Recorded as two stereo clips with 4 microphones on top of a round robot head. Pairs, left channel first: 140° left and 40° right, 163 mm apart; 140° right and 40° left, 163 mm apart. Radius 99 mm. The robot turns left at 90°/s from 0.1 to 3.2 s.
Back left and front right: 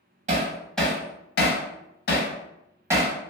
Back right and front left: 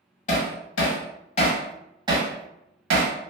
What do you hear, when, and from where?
0.3 s hammering: 90° right, 0.6 m; by 3.1 s 10° left, 0.6 m